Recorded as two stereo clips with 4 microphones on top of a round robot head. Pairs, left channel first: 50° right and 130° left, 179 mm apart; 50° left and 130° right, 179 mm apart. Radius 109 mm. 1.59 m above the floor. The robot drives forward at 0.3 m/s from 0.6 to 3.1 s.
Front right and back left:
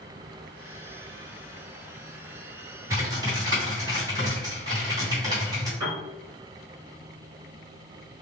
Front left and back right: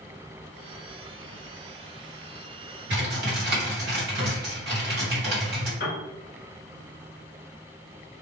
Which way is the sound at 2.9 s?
160° right.